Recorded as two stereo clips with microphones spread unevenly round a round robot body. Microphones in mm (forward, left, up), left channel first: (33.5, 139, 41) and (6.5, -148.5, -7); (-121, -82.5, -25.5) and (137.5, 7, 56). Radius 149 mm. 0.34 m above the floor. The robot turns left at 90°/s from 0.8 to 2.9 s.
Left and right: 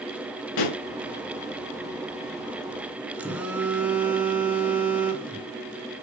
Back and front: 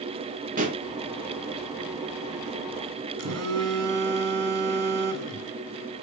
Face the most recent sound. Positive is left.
turn(degrees=-15)